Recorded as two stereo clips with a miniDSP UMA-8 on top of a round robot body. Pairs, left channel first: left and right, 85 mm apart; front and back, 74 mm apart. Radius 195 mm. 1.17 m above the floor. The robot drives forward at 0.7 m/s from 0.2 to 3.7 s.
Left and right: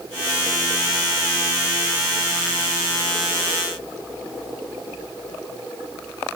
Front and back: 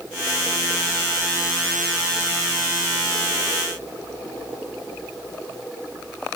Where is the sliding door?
I don't hear a sliding door.